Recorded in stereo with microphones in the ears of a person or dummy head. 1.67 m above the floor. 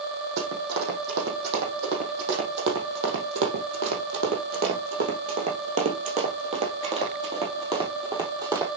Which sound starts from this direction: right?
Running footsteps, at 0.4 s.